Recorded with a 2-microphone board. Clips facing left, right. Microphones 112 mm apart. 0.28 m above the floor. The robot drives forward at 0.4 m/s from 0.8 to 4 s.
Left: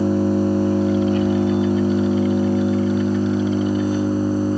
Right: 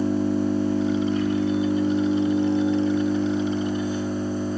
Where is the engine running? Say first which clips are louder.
Left 4 dB; 70° left (ahead or behind), 3 m; by 4.6 s 60° left (ahead or behind), 3 m.